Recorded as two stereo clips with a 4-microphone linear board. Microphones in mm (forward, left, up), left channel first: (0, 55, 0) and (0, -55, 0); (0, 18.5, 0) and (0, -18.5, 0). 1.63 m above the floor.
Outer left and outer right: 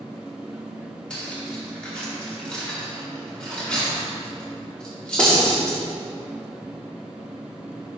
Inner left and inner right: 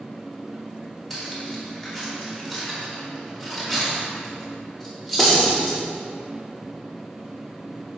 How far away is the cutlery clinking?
About 2.5 m.